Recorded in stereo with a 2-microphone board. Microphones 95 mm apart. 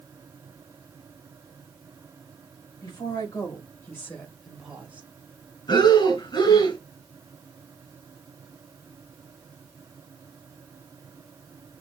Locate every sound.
2.8 s a woman speaking: 50° left (ahead or behind), 2 m; by 5.1 s 20° right (ahead or behind), 1.3 m
5.7 s breathing: 55° left (ahead or behind), 2.5 m